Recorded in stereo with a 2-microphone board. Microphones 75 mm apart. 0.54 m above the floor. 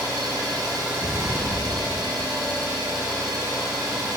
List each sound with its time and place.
0.0 s an engine running: 60° right (ahead or behind), 2 m
1.0 s an explosion: 45° right (ahead or behind), 1.3 m